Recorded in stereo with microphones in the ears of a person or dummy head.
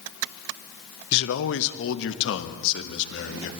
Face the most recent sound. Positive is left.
turn(degrees=70)  # may be behind; listen again after turning